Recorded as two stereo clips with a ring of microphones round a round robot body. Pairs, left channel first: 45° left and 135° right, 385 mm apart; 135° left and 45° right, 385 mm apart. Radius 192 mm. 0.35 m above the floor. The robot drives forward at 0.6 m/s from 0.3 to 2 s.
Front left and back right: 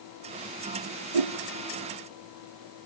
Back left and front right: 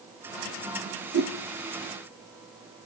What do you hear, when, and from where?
1.1 s a whoosh: 110° right, 2.5 m; by 1.3 s 115° right, 2.5 m